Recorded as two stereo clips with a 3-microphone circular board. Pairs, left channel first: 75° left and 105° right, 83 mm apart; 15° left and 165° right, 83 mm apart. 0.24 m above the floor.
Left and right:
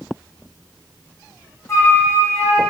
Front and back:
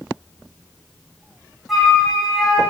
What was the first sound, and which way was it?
A flute, 110° left.